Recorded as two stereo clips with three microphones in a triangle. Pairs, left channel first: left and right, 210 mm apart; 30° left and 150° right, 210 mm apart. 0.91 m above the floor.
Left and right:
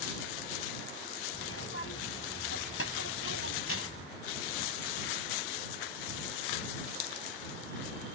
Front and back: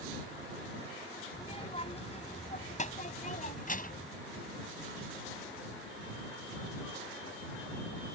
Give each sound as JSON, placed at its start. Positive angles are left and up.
{"t": 1.3, "sound": "a child speaking", "azimuth_deg": 95}